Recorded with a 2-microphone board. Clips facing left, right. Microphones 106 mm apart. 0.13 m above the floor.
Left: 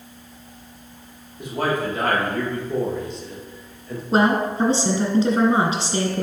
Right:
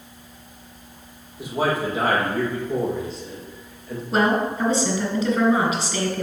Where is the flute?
I don't hear a flute.